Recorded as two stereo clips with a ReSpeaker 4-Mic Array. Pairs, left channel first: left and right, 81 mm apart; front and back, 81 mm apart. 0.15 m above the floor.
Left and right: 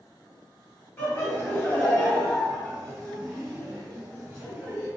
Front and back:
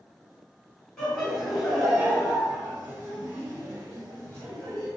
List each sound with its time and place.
1.0 s laughter: 70° left, 1.8 m; by 4.9 s 160° right, 2.5 m